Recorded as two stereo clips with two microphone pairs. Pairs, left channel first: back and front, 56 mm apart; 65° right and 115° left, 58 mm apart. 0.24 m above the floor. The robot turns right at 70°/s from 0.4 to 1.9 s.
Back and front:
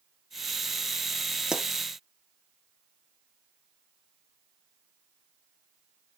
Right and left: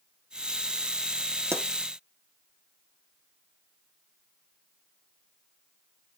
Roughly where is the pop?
Left.